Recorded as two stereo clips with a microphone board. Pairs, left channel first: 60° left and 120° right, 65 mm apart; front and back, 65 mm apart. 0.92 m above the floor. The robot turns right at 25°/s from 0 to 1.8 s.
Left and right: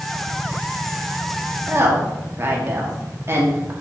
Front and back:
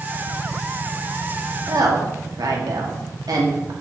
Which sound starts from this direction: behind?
A woman speaking, at 1.7 s.